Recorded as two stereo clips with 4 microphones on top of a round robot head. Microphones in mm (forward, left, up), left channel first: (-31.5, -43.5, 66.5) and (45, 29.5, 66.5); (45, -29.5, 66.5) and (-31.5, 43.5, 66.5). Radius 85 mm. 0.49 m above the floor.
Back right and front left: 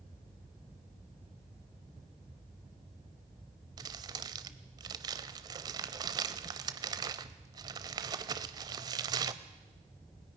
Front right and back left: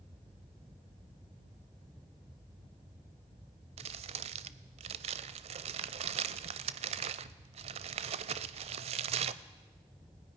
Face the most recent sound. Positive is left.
turn(degrees=105)